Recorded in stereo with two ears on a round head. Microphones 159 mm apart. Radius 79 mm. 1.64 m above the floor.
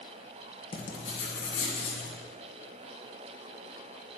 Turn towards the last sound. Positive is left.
turn(degrees=35)  # may be behind; listen again after turning